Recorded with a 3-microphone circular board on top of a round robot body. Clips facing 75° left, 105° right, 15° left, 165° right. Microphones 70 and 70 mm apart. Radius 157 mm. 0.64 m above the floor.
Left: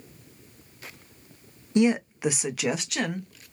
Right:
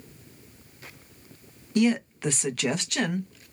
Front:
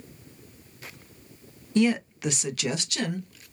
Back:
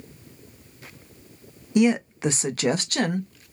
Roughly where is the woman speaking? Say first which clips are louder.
Left 1 dB, back 3 dB; behind left.